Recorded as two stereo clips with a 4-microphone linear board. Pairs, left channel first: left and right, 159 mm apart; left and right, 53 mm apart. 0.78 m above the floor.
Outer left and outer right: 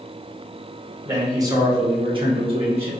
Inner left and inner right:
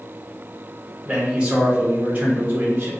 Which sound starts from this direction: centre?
A man speaking, at 1.0 s.